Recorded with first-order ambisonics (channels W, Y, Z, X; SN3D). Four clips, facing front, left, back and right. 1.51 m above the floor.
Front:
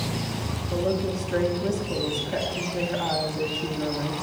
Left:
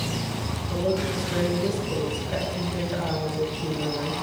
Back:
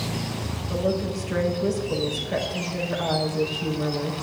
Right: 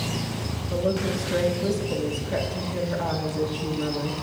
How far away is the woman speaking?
About 6 m.